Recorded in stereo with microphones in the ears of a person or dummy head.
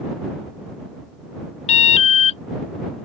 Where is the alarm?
35° left (ahead or behind).